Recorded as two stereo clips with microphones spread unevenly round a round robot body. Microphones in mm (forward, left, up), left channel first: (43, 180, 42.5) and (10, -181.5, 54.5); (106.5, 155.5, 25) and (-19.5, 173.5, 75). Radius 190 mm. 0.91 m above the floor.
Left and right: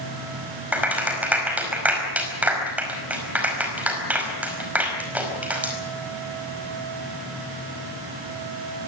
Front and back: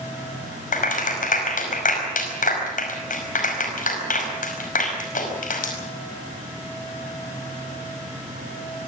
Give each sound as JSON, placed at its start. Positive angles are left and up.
{"t": 0.7, "sound": "a clap", "azimuth_deg": -10, "distance_m": 5.0}